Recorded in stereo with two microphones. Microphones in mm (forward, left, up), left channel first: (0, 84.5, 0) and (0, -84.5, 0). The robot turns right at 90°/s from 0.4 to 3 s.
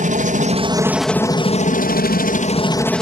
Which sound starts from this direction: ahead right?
A helicopter, at 0.0 s.